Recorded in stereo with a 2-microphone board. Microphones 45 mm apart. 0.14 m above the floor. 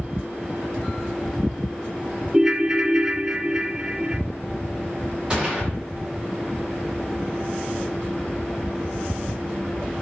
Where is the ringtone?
20° right (ahead or behind), 0.6 m.